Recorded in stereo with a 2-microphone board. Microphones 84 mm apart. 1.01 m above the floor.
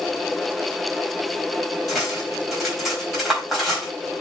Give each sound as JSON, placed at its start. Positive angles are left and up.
{"t": 1.9, "sound": "cutlery clinking", "side_deg": 0, "distance_m": 3.5}